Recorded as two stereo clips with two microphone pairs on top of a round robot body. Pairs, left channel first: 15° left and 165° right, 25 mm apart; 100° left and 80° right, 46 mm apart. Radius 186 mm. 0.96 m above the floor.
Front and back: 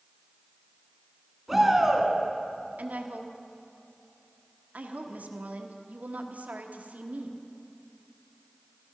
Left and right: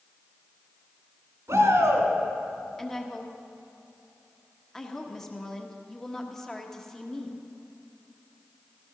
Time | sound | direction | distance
1.5 | a shout | 85° right | 3 m
2.8 | a woman speaking | straight behind | 1.3 m